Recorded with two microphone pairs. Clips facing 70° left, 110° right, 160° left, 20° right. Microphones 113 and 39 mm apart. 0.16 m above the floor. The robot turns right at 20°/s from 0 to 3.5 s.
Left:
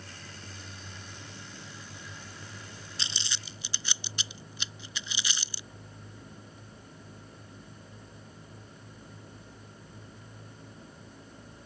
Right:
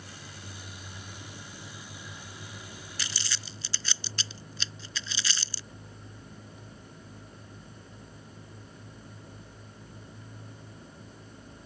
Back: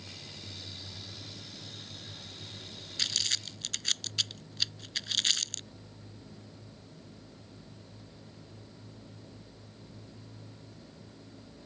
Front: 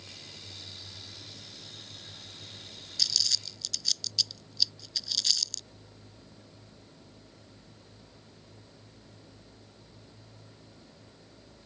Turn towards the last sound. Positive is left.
turn(degrees=135)